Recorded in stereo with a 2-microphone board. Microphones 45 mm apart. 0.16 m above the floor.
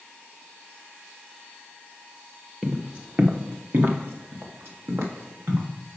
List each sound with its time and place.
2.6 s footsteps: 25° right (ahead or behind), 1.2 m; by 5.7 s 75° right (ahead or behind), 2.5 m